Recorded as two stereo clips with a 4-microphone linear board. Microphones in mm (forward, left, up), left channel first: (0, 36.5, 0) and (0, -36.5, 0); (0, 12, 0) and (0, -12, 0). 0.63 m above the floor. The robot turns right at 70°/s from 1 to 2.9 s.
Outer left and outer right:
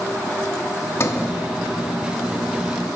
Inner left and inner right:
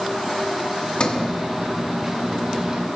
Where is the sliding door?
40° left (ahead or behind), 0.9 m.